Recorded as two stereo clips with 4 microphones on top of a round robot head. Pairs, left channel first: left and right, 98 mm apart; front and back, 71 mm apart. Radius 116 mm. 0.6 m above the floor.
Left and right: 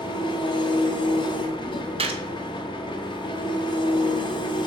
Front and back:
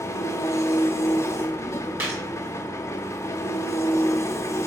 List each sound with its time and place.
0.0 s an engine running: 50° left, 0.9 m
2.0 s a gunshot: 115° right, 1.3 m